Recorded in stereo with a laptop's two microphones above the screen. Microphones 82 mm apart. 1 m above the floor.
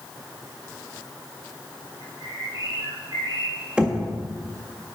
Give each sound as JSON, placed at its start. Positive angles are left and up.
{"t": 2.0, "sound": "a bird", "side_deg": -55, "distance_m": 5.0}
{"t": 3.8, "sound": "knocking", "side_deg": -15, "distance_m": 1.5}